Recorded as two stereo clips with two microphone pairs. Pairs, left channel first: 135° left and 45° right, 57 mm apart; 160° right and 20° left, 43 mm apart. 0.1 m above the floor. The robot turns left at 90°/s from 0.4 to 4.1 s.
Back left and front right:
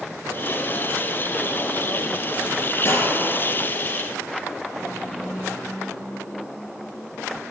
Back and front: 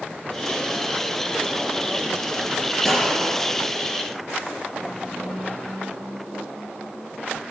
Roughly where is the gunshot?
Behind left.